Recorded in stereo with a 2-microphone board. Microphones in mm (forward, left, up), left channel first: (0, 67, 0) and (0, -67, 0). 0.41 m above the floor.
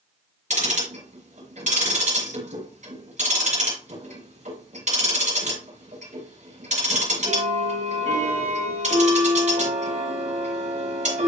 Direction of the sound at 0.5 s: 70° right (ahead or behind).